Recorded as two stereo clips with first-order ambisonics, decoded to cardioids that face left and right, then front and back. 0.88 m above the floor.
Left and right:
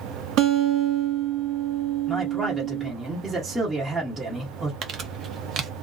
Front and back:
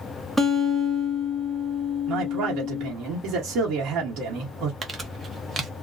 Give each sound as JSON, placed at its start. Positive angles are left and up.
{"t": 0.4, "sound": "a guitar", "azimuth_deg": -100, "distance_m": 1.0}
{"t": 2.1, "sound": "a man speaking", "azimuth_deg": -160, "distance_m": 1.0}
{"t": 4.8, "sound": "crumpling", "azimuth_deg": -120, "distance_m": 0.6}